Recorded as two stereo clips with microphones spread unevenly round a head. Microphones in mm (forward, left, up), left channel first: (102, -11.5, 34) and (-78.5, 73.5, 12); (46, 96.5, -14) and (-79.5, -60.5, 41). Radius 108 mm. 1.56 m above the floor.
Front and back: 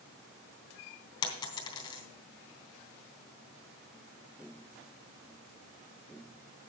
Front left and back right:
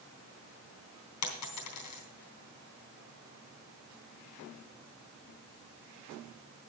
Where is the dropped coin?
40° left, 3 m.